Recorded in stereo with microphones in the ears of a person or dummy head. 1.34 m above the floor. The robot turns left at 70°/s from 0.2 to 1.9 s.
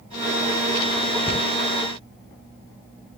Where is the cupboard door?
15° left (ahead or behind), 0.7 m; by 1.5 s 30° left (ahead or behind), 0.7 m.